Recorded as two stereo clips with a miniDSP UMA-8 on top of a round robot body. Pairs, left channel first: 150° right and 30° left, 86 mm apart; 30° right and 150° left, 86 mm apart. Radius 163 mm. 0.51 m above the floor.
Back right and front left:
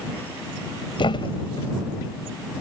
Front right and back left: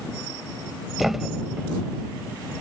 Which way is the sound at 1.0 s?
120° right.